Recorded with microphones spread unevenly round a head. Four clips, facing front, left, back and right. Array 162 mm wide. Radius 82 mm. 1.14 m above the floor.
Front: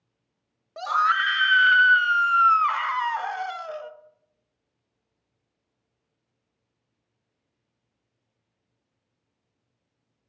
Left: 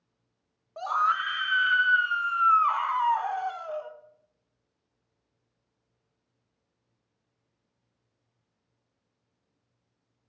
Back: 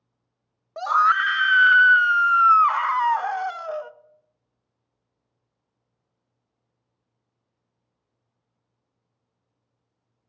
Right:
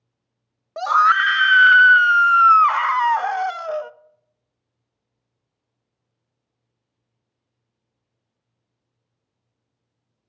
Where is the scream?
85° right, 0.6 m.